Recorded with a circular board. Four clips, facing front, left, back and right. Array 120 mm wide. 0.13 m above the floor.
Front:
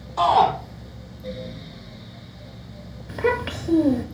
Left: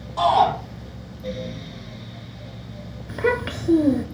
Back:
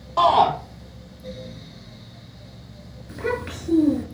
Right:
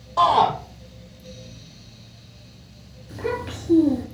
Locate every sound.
0.2 s a shout: 170° right, 3.5 m
3.1 s a child speaking: 60° left, 1.1 m